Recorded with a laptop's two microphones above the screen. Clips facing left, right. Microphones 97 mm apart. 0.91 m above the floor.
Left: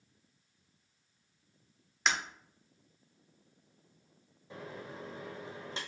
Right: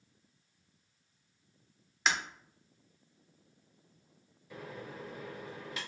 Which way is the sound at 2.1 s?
Centre (ahead or behind).